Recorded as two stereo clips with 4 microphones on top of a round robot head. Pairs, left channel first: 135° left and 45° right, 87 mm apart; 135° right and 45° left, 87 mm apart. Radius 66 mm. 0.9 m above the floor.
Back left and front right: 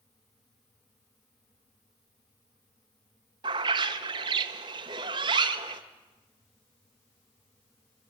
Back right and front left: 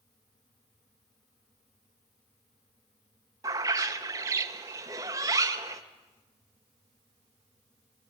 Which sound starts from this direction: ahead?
A bird, at 3.4 s.